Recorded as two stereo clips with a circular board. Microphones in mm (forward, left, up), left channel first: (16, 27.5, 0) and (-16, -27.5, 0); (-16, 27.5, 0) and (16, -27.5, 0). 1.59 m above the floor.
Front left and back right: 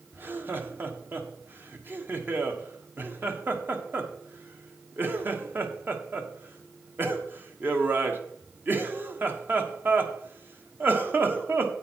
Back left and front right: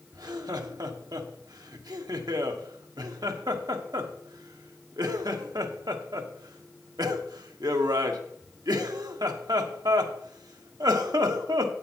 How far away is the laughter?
About 1.1 m.